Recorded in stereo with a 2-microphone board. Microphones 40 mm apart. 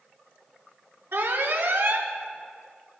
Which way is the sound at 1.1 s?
80° right.